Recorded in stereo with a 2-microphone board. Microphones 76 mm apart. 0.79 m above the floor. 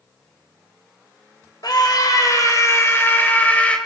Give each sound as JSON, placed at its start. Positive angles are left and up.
{"t": 1.6, "sound": "a scream", "side_deg": 60, "distance_m": 3.5}